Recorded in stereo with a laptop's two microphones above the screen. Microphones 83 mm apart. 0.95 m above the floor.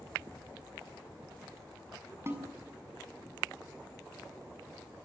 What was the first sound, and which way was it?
A snare drum, 30° right (ahead or behind).